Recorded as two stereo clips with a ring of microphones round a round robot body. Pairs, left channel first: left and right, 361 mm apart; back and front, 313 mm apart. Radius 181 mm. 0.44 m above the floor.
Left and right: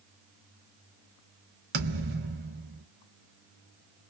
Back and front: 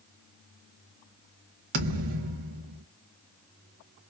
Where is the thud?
30° right, 1.1 m.